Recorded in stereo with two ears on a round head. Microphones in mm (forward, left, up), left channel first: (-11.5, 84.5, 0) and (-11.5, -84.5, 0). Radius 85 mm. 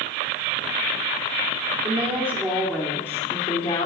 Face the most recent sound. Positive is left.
turn(degrees=35)  # may be behind; listen again after turning